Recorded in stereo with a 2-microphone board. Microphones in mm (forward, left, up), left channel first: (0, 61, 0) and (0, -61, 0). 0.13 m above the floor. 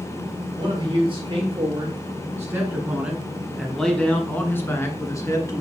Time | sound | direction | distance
0.6 | a man speaking | 35° right (ahead or behind) | 2.5 m